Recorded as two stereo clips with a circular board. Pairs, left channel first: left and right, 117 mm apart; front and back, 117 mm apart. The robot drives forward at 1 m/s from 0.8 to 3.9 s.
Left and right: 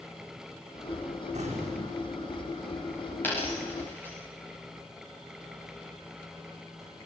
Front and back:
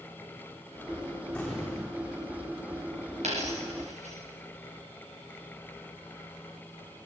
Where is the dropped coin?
165° left, 9.5 m.